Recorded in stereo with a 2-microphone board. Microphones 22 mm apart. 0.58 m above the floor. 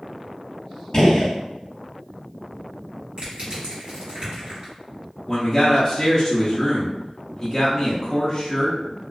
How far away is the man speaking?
About 0.6 m.